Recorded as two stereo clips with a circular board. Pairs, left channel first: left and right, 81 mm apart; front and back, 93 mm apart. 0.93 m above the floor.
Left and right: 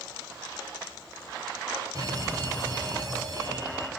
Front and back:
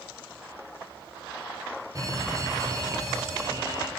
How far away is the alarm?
About 3 m.